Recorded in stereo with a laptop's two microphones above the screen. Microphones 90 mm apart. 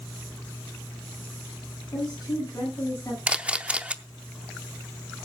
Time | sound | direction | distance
1.9 | a woman speaking | 45° left (ahead or behind) | 10 m
3.3 | a camera shutter | 10° right (ahead or behind) | 0.6 m